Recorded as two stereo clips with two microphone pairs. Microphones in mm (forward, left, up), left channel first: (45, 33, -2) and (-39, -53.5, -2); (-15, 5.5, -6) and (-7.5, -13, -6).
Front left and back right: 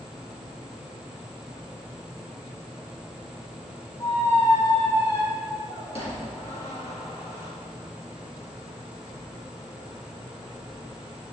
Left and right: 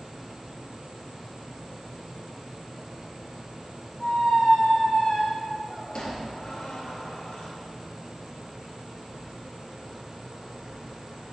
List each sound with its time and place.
4.0 s a squeak: 75° left, 3 m